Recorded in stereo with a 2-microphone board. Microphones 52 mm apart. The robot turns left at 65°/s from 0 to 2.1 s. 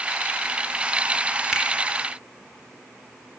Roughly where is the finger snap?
Centre.